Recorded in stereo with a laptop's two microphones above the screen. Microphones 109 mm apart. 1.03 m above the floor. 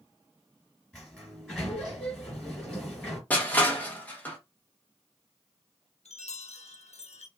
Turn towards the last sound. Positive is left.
turn(degrees=85)